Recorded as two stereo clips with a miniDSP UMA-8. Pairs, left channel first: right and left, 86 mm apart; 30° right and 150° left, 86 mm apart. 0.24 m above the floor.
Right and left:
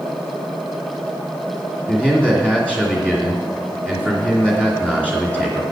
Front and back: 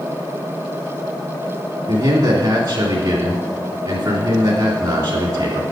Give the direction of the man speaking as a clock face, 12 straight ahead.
5 o'clock.